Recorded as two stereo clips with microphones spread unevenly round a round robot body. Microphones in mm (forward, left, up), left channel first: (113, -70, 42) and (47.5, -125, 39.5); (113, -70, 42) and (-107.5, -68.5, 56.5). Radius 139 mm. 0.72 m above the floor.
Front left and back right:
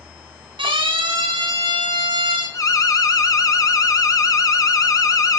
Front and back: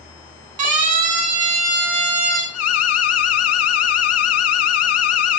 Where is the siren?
175° left, 9 m.